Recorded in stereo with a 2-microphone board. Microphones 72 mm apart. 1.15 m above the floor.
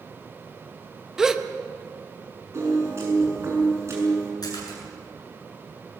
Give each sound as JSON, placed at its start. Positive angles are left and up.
{"t": 1.2, "sound": "a gasp", "side_deg": -10, "distance_m": 1.0}
{"t": 2.5, "sound": "a piano", "side_deg": -40, "distance_m": 7.0}
{"t": 4.4, "sound": "a splash", "side_deg": 65, "distance_m": 8.5}